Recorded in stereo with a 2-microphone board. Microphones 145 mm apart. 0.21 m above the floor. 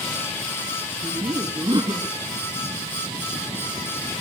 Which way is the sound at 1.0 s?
30° right (ahead or behind).